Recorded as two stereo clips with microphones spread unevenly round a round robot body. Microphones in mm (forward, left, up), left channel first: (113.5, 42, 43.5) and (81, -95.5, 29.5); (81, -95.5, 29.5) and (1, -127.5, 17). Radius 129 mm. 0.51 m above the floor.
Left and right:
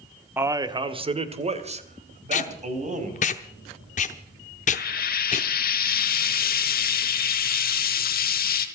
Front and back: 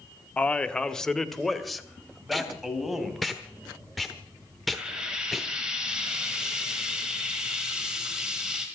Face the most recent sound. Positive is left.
turn(degrees=115)